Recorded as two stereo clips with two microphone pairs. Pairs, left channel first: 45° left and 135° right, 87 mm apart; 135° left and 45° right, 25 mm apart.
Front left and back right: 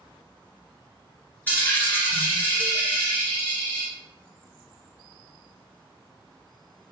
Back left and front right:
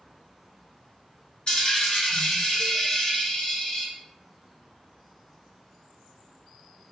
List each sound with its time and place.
1.5 s a dropped coin: 110° left, 1.3 m